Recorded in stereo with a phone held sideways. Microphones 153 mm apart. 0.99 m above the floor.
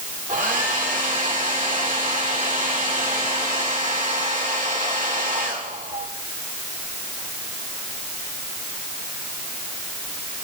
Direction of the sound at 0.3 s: 55° right (ahead or behind).